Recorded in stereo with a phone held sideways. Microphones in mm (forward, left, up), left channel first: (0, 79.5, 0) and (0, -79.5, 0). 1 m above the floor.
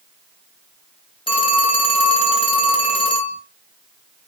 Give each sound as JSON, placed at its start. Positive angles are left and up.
{"t": 1.3, "sound": "a phone ringing", "side_deg": 35, "distance_m": 0.5}